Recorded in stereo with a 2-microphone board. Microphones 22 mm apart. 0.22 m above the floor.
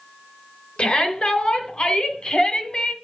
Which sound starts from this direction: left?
A shout, at 0.8 s.